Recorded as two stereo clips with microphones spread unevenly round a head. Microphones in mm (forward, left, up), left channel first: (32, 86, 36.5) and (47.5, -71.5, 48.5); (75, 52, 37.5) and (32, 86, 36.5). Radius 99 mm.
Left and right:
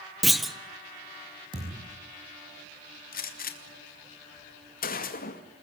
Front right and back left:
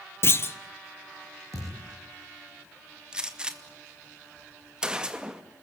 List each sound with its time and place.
0.2 s a clunk: 5° left, 1.5 m
1.5 s a thud: 150° right, 6 m
3.1 s a gunshot: 65° left, 2.5 m